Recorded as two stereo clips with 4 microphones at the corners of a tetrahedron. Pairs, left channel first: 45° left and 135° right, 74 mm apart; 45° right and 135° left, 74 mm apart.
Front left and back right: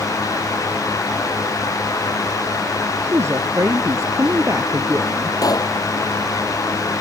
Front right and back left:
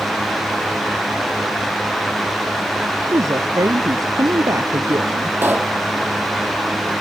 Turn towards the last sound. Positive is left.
turn(degrees=75)